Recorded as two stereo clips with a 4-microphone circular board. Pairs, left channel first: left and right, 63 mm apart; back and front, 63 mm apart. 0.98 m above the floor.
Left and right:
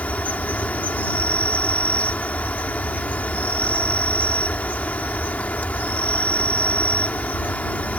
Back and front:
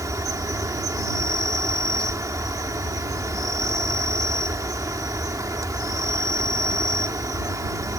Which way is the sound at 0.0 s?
25° left.